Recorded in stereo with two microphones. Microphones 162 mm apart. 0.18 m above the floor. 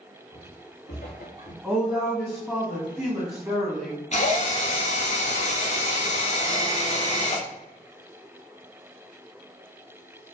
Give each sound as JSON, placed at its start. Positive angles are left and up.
{"t": 0.3, "sound": "footsteps", "side_deg": 85, "distance_m": 1.3}
{"t": 1.6, "sound": "a woman speaking", "side_deg": -5, "distance_m": 1.0}
{"t": 4.1, "sound": "a drill", "side_deg": 50, "distance_m": 0.6}